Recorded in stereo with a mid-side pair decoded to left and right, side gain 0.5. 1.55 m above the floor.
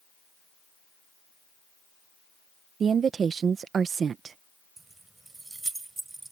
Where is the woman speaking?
45° right.